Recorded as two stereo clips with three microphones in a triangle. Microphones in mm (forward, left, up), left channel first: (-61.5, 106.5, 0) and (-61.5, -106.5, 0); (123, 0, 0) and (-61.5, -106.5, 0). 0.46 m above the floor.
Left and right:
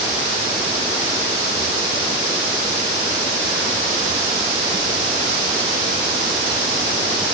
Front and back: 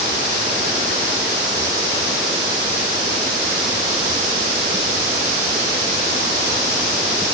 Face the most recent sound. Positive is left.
No sound to turn to.